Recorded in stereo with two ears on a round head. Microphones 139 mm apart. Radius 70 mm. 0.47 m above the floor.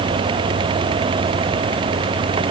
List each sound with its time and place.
Only background noise.